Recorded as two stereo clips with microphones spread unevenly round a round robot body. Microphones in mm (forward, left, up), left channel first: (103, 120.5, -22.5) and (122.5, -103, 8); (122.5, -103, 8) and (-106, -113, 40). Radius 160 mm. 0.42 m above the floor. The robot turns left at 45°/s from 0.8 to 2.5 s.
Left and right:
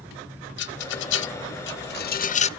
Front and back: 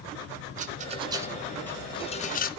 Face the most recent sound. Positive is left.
turn(degrees=40)